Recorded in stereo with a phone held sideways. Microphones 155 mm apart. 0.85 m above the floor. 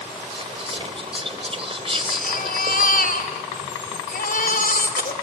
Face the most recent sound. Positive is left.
turn(degrees=70)  # may be behind; listen again after turning